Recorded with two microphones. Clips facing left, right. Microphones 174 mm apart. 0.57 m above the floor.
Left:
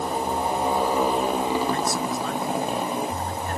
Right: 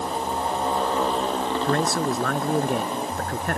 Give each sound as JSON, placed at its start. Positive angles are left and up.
{"t": 0.0, "sound": "a motorcycle", "side_deg": 10}
{"t": 1.6, "sound": "a man speaking", "side_deg": -70}